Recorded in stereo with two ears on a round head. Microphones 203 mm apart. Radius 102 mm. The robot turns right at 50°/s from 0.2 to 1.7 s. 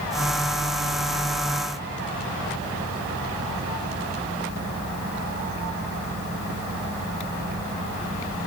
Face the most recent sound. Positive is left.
No sound to turn to.